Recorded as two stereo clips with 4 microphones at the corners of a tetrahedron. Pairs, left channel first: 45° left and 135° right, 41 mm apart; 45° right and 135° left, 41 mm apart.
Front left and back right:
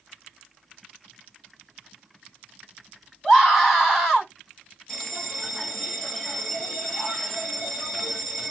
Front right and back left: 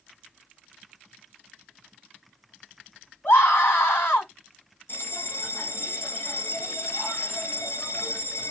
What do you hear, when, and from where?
3.2 s a scream: 45° right, 2.5 m
4.9 s a bell: 35° right, 1.8 m